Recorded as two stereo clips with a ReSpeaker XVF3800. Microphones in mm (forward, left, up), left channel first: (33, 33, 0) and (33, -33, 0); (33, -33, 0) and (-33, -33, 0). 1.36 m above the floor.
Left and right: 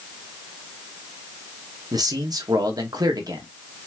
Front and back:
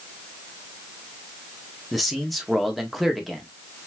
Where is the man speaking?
90° right, 1.6 m.